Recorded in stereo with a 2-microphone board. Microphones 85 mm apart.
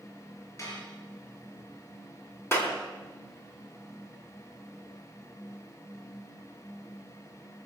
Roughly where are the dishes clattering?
Left.